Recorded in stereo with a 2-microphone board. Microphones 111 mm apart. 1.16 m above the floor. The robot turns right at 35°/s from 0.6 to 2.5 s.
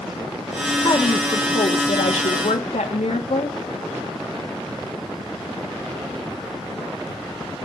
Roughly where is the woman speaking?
Ahead left.